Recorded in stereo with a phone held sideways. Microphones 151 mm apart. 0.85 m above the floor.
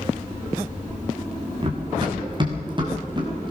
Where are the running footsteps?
35° right (ahead or behind), 3.5 m; by 3.5 s 30° right (ahead or behind), 5 m.